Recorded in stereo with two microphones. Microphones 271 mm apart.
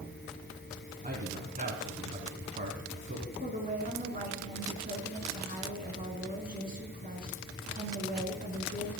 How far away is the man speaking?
About 1.7 m.